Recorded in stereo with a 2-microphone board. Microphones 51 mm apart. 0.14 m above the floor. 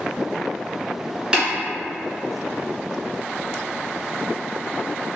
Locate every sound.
1.3 s tapping: 15° right (ahead or behind), 1.9 m